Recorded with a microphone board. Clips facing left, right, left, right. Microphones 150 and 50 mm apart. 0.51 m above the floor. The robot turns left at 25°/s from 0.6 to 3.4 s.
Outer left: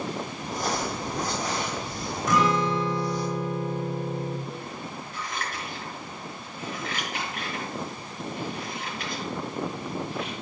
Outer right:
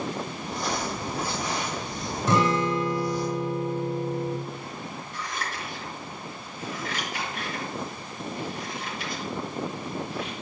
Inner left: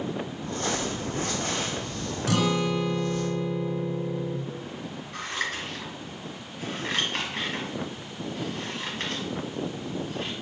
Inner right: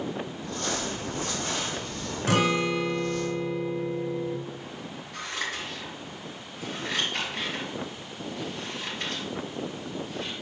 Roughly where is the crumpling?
Left.